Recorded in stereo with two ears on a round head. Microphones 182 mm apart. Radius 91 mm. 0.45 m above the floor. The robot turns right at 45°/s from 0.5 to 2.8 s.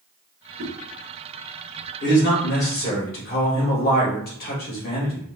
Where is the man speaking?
80° left, 1.8 m; by 5.3 s 115° left, 1.8 m.